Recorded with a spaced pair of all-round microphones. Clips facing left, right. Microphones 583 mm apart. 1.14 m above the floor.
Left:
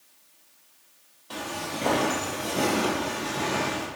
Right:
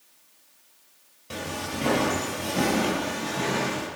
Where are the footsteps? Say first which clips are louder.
Right 1 dB; 50° right (ahead or behind), 2 m; by 3.9 s 10° left (ahead or behind), 2.5 m.